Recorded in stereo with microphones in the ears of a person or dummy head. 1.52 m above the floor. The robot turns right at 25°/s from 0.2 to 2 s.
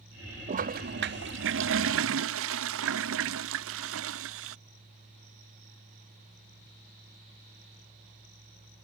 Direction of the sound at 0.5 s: 135° right.